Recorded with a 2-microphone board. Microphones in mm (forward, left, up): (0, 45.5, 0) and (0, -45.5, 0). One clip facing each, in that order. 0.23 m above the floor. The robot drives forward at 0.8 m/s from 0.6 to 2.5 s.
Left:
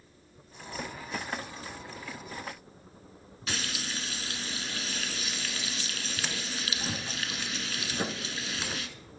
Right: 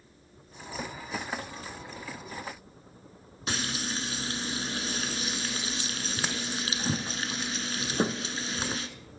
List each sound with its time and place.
3.5 s frying: 30° right (ahead or behind), 1.2 m